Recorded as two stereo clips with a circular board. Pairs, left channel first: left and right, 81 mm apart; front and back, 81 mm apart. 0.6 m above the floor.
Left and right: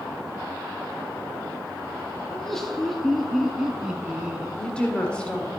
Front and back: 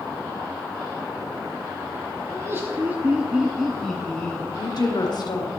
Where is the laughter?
170° left, 1.4 m; by 4.5 s 35° right, 1.3 m.